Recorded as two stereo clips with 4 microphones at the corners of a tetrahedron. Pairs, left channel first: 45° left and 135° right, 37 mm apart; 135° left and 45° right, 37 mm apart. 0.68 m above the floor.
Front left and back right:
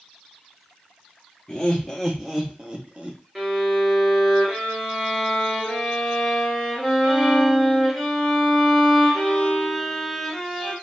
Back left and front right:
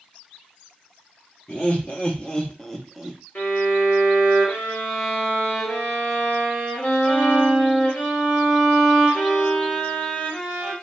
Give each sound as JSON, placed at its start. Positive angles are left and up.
{"t": 1.5, "sound": "laughter", "azimuth_deg": 110, "distance_m": 0.9}
{"t": 3.4, "sound": "a violin", "azimuth_deg": 135, "distance_m": 1.2}